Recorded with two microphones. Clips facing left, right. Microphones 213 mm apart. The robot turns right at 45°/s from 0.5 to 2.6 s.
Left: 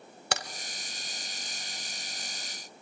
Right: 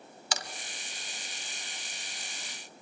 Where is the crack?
65° left (ahead or behind), 0.8 m.